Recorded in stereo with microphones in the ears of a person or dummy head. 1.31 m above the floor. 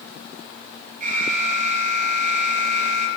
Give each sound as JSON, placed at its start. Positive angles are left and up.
{"t": 1.0, "sound": "an alarm", "side_deg": -50, "distance_m": 6.5}